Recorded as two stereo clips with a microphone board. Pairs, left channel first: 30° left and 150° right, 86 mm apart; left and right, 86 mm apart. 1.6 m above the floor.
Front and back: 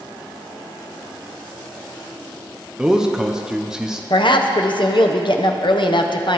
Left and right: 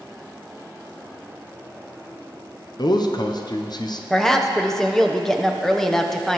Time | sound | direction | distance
2.8 | a man speaking | 125° left | 0.9 m
4.1 | a woman speaking | 5° left | 0.9 m